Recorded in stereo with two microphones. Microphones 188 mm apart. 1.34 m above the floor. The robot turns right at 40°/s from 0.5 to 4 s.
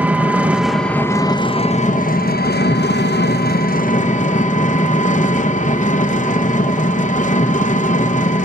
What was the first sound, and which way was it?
An engine running, 10° right.